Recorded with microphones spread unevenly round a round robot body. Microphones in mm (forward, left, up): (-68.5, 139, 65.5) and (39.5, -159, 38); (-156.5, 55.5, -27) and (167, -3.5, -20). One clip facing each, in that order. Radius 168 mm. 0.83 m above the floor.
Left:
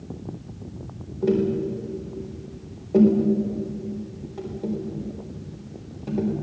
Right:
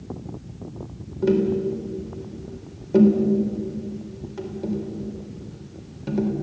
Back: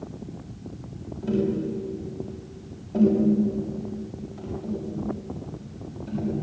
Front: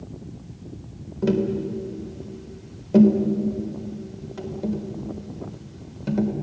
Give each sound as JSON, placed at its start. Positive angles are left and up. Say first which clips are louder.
{"t": 1.2, "sound": "tapping", "louder": "right 2 dB, front 2 dB", "azimuth_deg": -10, "distance_m": 4.0}